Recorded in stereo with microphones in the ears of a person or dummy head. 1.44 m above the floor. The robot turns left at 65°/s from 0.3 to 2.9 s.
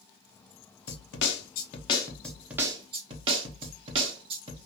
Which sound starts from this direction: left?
A snare drum, at 0.9 s.